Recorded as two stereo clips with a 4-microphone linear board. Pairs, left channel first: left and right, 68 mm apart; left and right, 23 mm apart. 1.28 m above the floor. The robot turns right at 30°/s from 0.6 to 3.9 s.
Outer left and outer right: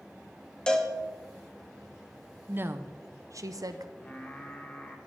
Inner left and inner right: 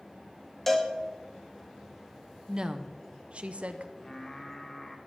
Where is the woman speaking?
150° right, 0.7 m; by 3.9 s 105° right, 0.7 m.